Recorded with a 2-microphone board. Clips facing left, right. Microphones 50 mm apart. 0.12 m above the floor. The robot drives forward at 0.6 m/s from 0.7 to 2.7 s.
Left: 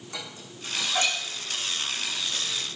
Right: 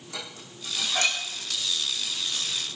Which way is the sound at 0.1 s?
20° left (ahead or behind).